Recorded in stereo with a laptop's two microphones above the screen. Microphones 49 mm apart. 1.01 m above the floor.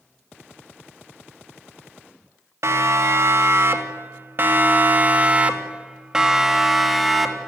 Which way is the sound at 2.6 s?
65° right (ahead or behind).